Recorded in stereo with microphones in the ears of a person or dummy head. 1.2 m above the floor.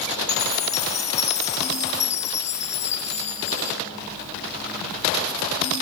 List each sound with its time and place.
0.3 s a chime: 40° left (ahead or behind), 1.0 m